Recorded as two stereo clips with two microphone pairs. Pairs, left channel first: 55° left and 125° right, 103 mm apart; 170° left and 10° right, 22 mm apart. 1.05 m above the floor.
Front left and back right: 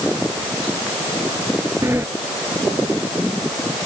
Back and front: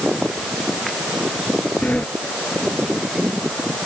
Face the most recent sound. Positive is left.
turn(degrees=170)